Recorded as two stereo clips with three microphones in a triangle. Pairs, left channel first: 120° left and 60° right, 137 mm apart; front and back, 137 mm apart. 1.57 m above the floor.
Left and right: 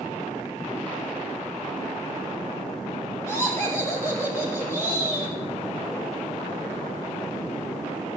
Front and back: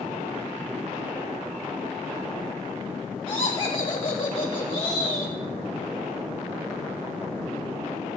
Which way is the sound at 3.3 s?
50° left.